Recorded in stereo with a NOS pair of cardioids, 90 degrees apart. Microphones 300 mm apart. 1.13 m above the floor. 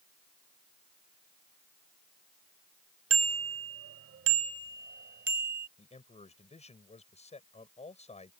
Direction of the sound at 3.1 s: 55° right.